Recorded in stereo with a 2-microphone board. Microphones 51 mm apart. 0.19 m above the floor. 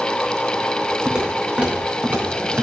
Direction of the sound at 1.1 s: 20° right (ahead or behind).